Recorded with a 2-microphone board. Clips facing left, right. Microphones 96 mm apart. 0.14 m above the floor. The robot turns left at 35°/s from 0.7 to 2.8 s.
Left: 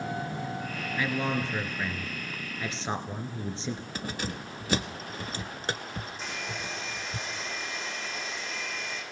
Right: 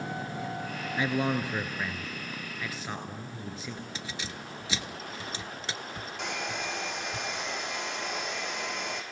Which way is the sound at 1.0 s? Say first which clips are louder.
Right 1 dB; 150° right.